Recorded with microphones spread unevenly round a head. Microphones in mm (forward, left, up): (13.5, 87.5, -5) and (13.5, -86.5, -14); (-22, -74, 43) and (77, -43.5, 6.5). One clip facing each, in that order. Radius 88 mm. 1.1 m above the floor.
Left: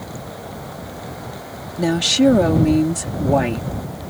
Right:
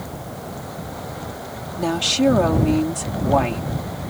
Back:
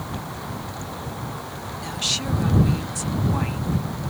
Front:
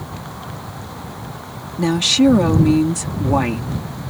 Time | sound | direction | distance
1.8 | a woman speaking | 20° left | ?